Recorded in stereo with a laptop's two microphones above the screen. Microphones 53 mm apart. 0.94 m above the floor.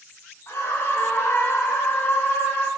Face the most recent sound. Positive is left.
turn(degrees=35)  # may be behind; listen again after turning